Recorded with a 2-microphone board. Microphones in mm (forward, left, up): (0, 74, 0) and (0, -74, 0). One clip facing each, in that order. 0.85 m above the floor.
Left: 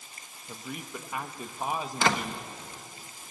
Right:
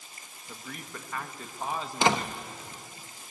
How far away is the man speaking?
About 1.0 m.